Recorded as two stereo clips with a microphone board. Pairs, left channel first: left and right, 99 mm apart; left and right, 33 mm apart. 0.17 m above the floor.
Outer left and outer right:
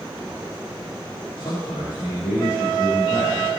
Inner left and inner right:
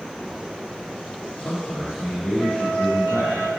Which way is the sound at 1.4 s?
65° left (ahead or behind).